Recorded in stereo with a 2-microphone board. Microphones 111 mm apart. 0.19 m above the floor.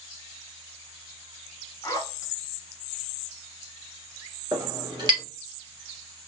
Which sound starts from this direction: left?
A zipper, at 1.8 s.